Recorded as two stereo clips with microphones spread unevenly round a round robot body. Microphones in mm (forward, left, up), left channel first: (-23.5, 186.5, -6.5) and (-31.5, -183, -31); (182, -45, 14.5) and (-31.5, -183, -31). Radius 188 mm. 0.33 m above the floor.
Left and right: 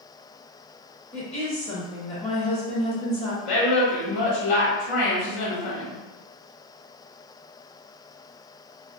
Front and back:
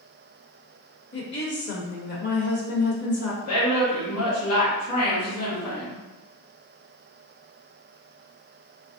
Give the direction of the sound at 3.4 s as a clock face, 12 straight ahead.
10 o'clock.